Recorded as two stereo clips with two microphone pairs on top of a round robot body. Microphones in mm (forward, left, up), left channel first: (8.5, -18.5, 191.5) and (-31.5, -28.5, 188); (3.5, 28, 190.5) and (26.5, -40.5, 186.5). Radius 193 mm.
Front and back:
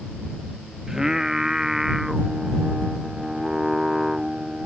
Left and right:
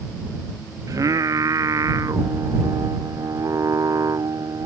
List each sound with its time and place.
0.9 s singing: 95° right